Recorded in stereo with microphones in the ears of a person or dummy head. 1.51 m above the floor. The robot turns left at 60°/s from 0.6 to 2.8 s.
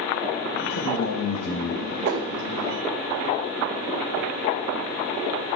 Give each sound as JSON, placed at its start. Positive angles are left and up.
{"t": 0.7, "sound": "a man speaking", "azimuth_deg": 105, "distance_m": 1.4}
{"t": 2.0, "sound": "a whoosh", "side_deg": -60, "distance_m": 2.0}